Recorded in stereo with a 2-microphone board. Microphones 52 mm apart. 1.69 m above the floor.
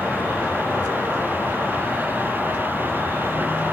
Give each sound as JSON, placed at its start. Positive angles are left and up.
{"t": 0.0, "sound": "an insect", "side_deg": 75, "distance_m": 1.8}